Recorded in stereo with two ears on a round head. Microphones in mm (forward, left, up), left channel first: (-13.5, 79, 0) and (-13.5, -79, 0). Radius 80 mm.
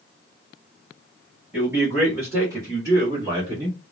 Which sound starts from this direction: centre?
A man speaking, at 1.5 s.